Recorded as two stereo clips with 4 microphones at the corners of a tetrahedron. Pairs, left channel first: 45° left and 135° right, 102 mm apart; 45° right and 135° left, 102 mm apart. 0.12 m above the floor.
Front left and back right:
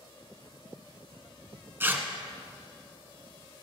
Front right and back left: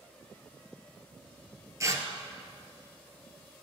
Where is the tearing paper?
170° left, 1.1 m.